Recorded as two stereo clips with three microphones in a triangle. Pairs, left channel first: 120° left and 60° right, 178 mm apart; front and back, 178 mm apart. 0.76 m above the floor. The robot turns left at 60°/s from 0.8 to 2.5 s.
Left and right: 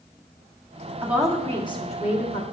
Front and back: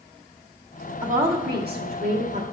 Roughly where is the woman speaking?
Behind right.